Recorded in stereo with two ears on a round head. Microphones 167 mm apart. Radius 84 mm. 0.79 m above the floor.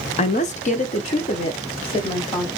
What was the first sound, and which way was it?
A woman speaking, 35° left (ahead or behind).